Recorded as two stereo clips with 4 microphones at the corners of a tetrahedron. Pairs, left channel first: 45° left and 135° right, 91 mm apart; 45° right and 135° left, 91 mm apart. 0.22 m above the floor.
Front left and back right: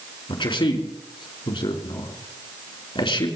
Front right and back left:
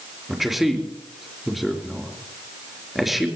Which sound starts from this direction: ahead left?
A man speaking, at 0.3 s.